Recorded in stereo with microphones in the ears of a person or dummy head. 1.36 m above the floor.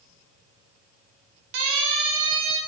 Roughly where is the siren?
Right.